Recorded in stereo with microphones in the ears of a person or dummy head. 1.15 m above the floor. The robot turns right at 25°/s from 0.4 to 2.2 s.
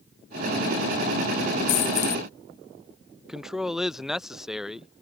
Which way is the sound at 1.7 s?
50° left (ahead or behind).